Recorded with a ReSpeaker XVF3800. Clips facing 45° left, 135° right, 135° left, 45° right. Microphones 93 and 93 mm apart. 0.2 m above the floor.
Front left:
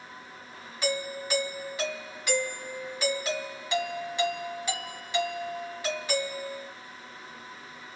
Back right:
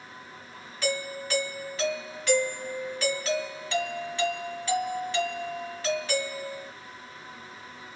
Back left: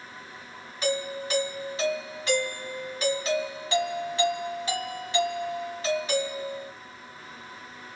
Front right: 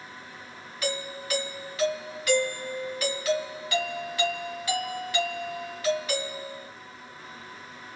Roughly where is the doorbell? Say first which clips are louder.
Even, back left 4 dB; left.